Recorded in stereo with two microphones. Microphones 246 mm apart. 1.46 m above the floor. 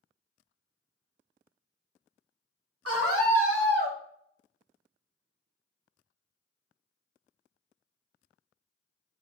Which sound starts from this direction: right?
A scream, at 2.9 s.